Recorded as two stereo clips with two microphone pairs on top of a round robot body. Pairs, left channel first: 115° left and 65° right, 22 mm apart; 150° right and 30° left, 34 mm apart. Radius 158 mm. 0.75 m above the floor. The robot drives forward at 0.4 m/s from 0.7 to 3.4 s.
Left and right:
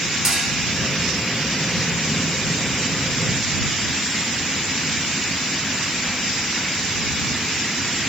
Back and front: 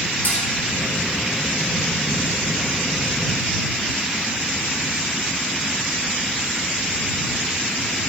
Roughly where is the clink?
Behind right.